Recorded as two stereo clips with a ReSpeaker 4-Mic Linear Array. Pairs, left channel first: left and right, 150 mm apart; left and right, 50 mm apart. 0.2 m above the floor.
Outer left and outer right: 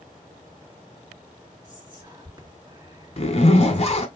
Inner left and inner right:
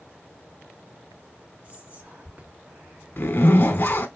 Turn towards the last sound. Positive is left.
turn(degrees=45)  # may be behind; listen again after turning